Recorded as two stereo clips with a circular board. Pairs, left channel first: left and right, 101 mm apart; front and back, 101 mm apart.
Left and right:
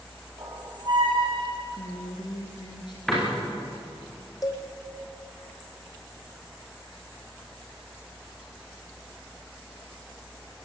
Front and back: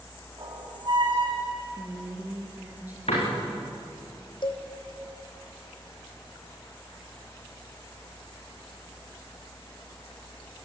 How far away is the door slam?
About 9 m.